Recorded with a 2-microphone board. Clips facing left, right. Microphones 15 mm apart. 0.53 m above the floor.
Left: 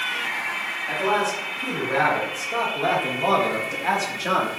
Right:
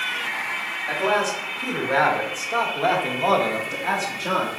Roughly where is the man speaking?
Right.